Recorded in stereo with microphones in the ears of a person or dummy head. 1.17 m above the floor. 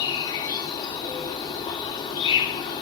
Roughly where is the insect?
Left.